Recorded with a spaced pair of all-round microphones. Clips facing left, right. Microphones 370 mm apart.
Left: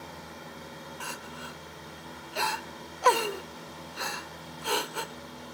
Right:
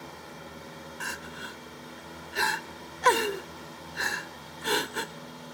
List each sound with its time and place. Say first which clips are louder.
1.0 s crying: even; 30° right (ahead or behind), 0.6 m